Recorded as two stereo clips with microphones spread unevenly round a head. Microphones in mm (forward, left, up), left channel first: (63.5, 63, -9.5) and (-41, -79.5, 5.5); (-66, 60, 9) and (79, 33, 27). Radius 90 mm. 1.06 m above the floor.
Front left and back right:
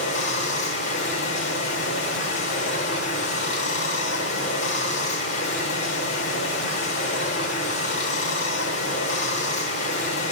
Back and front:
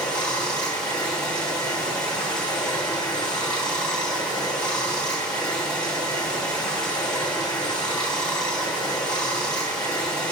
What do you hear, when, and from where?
0.0 s running water: 85° left, 1.4 m